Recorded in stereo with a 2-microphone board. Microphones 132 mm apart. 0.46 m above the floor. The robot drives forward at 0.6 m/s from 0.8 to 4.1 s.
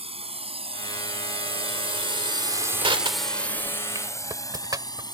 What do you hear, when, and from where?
0.0 s a drone: 50° right (ahead or behind); by 5.1 s 30° left (ahead or behind)
2.8 s crushing: 40° right (ahead or behind); by 5.0 s 30° right (ahead or behind)